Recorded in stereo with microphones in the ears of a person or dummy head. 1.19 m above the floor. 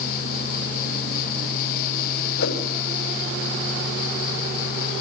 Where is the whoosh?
70° left (ahead or behind), 3.5 m.